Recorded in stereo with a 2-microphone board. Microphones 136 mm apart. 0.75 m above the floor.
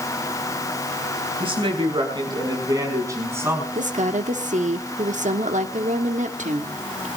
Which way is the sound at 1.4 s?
40° right (ahead or behind).